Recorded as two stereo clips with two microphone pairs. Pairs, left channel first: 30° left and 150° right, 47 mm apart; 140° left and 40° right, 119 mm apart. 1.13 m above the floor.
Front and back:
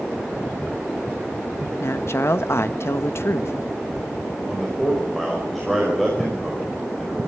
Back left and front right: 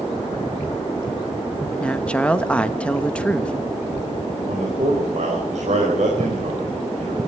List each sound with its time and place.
1.8 s a woman speaking: 60° left, 1.0 m
4.5 s a man speaking: 60° right, 5 m